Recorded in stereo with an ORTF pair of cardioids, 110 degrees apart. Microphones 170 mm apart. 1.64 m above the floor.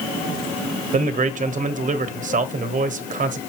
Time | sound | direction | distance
0.9 | a man speaking | 50° right | 1.1 m